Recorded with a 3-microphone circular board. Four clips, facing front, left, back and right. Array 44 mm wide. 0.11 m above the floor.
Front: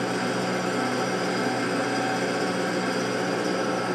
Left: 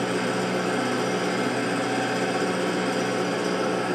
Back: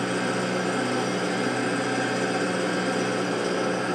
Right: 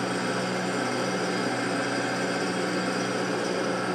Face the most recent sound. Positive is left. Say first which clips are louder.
# left 3 dB, even
turn(degrees=105)